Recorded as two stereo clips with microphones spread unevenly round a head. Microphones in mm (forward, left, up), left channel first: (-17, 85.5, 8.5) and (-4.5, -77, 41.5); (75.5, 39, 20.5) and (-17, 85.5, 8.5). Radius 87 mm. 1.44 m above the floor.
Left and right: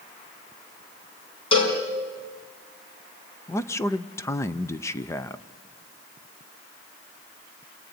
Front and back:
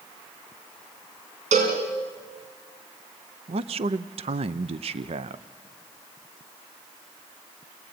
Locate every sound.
1.5 s a cowbell: 155° left, 4.5 m
3.5 s a man speaking: 160° left, 0.7 m